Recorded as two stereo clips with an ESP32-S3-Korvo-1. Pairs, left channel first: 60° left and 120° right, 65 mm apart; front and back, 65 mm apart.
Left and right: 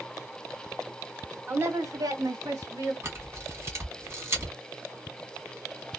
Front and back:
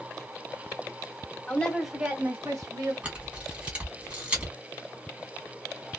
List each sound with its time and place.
1.5 s a woman speaking: 60° right, 1.0 m; by 2.9 s 150° right, 1.5 m
3.0 s a camera shutter: 120° right, 1.6 m